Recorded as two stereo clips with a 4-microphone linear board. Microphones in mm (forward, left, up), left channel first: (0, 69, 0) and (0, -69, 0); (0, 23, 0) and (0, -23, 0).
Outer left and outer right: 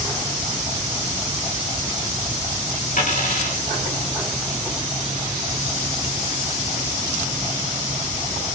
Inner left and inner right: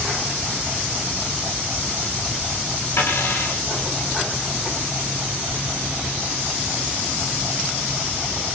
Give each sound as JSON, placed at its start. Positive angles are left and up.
{"t": 3.0, "sound": "a dropped coin", "side_deg": 70, "distance_m": 4.5}